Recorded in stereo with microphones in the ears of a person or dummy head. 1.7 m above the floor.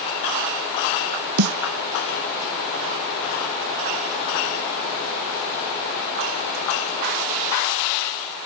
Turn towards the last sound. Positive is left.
turn(degrees=-85)